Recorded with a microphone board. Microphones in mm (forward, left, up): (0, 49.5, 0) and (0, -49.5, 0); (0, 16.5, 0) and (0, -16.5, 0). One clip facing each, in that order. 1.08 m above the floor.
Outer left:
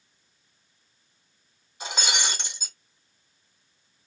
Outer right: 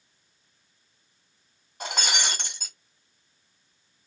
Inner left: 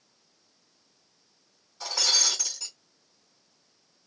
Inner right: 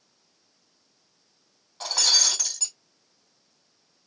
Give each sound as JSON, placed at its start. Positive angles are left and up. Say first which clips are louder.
{"t": 1.8, "sound": "breaking glass", "louder": "even, inner right 3 dB", "side_deg": -55, "distance_m": 1.9}